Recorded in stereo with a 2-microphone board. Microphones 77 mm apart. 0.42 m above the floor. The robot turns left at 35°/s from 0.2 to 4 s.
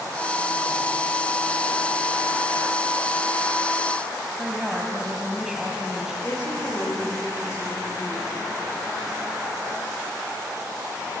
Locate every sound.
4.4 s a woman speaking: 10° right (ahead or behind), 2.5 m
6.2 s a woman speaking: 40° left (ahead or behind), 8.5 m